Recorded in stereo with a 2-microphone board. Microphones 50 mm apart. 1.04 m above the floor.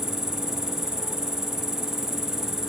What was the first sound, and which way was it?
An insect, 10° right (ahead or behind).